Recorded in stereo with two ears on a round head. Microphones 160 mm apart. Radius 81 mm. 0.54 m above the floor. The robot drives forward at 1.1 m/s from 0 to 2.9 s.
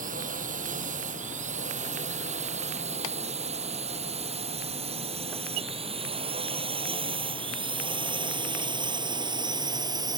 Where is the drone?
50° right (ahead or behind); by 10.2 s 25° right (ahead or behind).